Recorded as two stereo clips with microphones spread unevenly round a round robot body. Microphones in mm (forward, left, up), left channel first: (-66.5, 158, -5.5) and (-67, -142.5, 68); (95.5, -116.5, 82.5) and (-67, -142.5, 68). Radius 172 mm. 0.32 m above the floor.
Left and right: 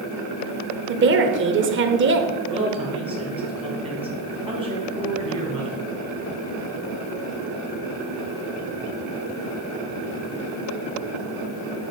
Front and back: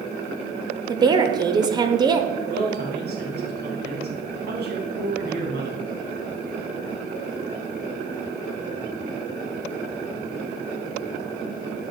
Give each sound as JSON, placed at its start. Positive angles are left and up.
{"t": 0.9, "sound": "a woman speaking", "azimuth_deg": -135, "distance_m": 1.1}
{"t": 2.5, "sound": "a man speaking", "azimuth_deg": -165, "distance_m": 3.0}